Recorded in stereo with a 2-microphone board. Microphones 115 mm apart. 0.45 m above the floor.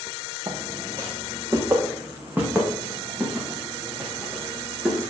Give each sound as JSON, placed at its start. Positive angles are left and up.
{"t": 0.5, "sound": "footsteps", "side_deg": -40, "distance_m": 3.0}